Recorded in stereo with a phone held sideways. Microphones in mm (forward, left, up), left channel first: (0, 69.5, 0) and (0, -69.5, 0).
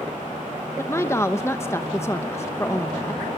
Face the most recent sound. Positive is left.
turn(degrees=20)  # may be behind; listen again after turning